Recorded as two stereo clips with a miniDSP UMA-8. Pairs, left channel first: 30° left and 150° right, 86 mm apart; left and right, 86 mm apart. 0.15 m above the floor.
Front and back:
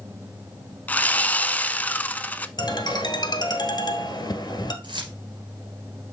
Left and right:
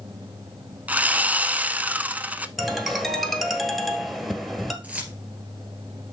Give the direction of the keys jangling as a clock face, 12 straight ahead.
5 o'clock.